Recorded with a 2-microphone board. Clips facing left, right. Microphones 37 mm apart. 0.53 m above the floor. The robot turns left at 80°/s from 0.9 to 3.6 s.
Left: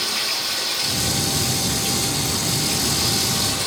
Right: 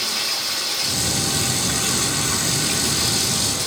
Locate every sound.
0.0 s running water: 5° left, 5 m; by 3.7 s 145° left, 5 m